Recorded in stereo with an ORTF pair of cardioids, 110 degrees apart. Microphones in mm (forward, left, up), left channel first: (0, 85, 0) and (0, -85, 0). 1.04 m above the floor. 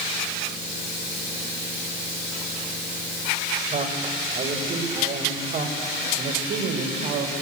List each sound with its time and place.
3.7 s a man speaking: 45° right, 4 m; by 7.3 s 75° right, 4 m